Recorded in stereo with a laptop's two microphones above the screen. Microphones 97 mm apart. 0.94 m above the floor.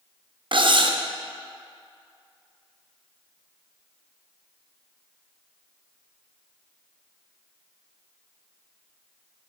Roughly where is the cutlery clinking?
Right.